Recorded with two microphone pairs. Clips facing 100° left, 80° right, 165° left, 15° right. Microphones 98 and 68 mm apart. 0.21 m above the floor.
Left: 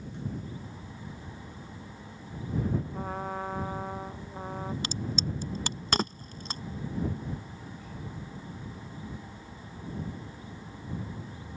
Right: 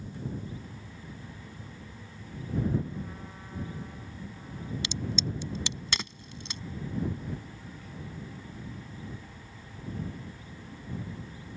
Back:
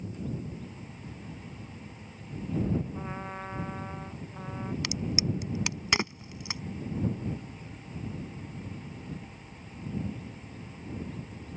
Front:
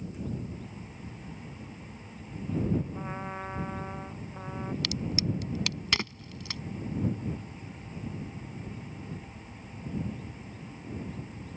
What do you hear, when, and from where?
2.9 s a trumpet: 70° left
4.8 s a crack: 105° left